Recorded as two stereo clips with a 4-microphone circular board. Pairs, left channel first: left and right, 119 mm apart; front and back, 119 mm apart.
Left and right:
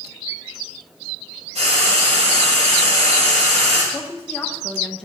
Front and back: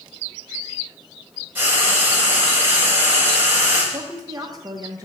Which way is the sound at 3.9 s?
165° left.